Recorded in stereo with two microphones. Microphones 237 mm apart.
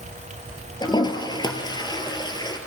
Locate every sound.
0.8 s a toilet flushing: 20° left (ahead or behind), 1.8 m